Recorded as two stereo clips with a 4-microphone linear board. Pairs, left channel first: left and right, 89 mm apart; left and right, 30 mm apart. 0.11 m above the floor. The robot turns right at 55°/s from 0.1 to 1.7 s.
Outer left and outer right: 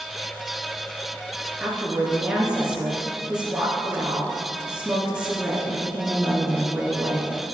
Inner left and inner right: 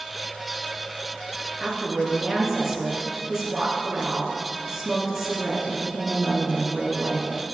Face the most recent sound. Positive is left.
turn(degrees=-10)  # may be behind; listen again after turning